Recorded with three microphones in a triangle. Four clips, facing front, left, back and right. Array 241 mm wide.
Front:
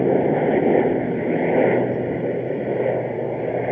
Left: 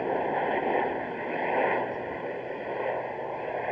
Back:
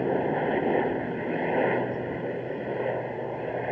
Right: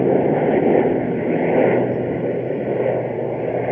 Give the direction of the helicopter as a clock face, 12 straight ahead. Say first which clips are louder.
Right 12 dB, front 8 dB; 2 o'clock.